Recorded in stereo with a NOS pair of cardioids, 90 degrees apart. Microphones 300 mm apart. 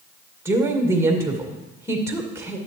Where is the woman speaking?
10° right, 2 m.